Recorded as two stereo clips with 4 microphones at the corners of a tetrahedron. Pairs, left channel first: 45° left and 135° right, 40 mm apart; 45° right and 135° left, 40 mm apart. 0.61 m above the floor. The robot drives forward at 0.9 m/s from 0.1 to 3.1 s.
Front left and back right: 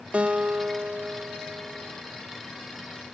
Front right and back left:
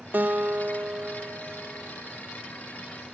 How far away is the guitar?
About 0.6 m.